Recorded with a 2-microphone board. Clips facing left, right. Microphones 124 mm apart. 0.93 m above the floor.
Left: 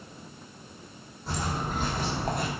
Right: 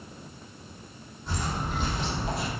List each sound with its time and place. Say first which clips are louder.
1.3 s footsteps: left 1 dB; 35° left (ahead or behind), 2.5 m; by 2.5 s 55° left (ahead or behind), 1.4 m